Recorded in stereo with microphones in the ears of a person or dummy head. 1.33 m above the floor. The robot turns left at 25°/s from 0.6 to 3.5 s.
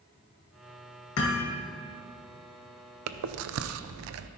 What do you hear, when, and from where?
1.2 s hammering: 70° left (ahead or behind), 1.6 m; by 1.6 s 60° left (ahead or behind), 1.6 m
3.1 s chewing: 75° right (ahead or behind), 0.5 m; by 4.3 s 70° right (ahead or behind), 0.5 m